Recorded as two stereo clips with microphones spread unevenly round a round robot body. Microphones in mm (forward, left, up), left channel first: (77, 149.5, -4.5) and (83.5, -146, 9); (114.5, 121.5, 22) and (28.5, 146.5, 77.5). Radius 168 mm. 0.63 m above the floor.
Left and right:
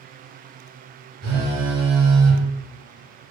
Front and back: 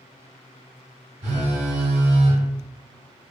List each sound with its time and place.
1.2 s a phone buzzing: 150° right, 1.2 m